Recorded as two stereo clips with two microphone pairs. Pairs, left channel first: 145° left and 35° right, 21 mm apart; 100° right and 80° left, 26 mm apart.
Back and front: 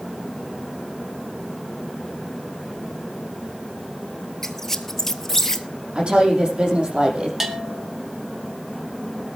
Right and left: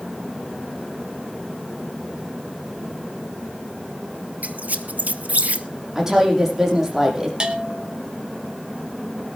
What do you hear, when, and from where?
4.4 s a squeak: 75° left, 1.1 m
6.0 s a woman speaking: 10° left, 6 m
7.4 s a bell: 40° left, 1.9 m